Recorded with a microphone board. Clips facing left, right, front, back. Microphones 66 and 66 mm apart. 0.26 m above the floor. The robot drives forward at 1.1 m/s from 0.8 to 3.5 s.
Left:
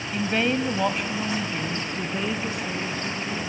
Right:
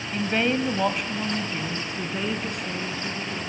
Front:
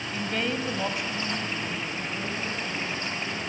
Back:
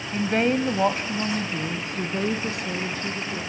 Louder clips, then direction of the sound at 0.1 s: Even, back 8 dB; 175° right.